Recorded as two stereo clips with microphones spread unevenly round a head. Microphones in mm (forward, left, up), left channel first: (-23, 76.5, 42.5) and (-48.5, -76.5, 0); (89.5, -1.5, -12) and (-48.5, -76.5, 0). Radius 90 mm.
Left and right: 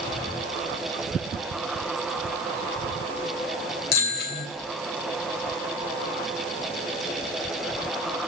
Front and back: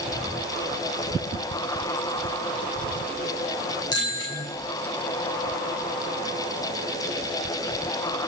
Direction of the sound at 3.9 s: 100° left.